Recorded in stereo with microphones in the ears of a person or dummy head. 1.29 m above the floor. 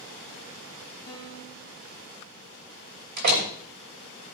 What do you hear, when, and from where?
1.1 s a piano: 20° left (ahead or behind), 2.0 m
3.2 s a door slam: 45° right (ahead or behind), 2.5 m